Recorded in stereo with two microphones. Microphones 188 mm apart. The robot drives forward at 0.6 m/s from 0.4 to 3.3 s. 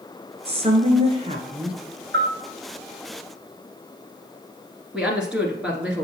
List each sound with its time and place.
0.5 s a woman speaking: 30° right (ahead or behind), 1.3 m; by 1.8 s 25° right (ahead or behind), 1.5 m
2.1 s a bell: 75° right (ahead or behind), 3 m
4.9 s a woman speaking: 5° right (ahead or behind), 1.5 m